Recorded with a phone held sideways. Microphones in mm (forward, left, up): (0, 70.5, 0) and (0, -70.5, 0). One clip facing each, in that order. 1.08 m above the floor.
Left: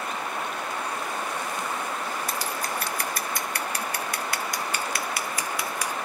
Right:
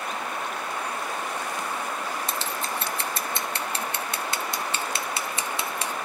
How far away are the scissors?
About 0.8 m.